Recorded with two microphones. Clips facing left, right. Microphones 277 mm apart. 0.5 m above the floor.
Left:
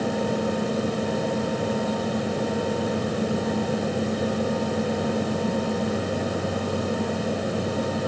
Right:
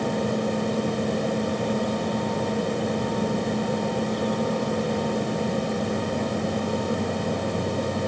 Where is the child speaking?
I don't hear a child speaking.